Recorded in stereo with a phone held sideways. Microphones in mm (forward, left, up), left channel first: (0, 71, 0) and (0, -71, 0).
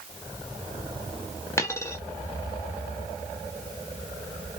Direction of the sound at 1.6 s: 20° left (ahead or behind).